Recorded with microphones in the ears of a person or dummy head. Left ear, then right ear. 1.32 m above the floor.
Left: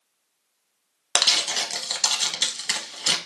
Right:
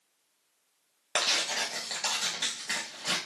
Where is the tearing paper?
25° left (ahead or behind), 0.8 m.